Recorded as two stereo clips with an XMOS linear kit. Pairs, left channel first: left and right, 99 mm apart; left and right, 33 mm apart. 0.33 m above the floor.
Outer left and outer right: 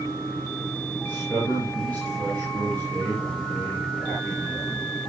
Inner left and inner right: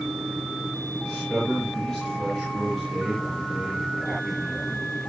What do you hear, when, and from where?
1.0 s a man speaking: 15° left (ahead or behind), 6 m